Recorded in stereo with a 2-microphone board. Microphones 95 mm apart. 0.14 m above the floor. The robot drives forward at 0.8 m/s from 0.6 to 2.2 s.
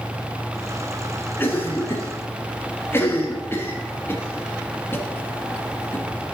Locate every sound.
1.4 s a cough: 25° left (ahead or behind), 1.2 m